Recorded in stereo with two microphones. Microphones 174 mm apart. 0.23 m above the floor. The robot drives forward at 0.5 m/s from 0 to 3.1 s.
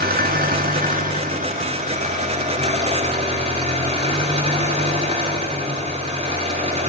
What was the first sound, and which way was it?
An engine running, 65° right (ahead or behind).